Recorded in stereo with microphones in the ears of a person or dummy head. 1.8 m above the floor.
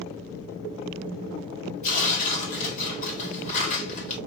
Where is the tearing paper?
45° left (ahead or behind), 2 m.